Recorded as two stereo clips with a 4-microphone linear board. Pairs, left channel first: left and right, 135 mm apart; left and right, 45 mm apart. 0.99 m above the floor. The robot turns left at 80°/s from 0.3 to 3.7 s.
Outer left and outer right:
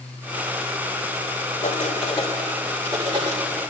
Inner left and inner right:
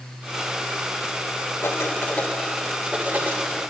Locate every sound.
1.6 s writing: 80° left, 2.5 m; by 3.4 s 65° right (ahead or behind), 2.5 m